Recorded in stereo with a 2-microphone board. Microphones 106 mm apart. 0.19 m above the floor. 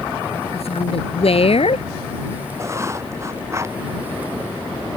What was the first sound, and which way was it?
A woman speaking, 70° left (ahead or behind).